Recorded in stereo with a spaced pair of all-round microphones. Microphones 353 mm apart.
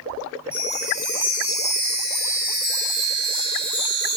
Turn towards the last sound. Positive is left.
turn(degrees=-15)  # may be behind; listen again after turning